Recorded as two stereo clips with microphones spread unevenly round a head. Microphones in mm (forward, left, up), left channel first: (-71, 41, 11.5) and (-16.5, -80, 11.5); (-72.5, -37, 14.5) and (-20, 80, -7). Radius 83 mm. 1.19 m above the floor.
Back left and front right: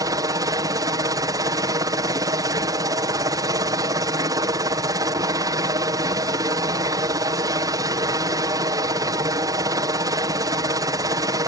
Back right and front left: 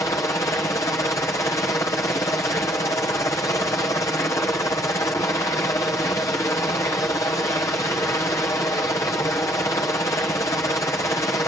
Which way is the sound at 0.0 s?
50° right.